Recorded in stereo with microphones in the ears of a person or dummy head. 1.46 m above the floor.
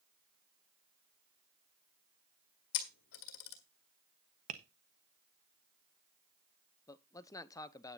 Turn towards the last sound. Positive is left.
turn(degrees=15)  # may be behind; listen again after turning